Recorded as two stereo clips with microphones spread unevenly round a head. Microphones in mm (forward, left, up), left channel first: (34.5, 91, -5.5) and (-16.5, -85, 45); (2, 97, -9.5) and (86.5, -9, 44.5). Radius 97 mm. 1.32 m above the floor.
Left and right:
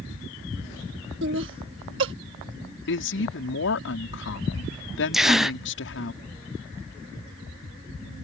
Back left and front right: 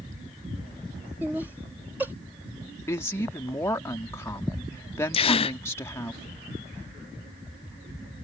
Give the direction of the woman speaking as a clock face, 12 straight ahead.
10 o'clock.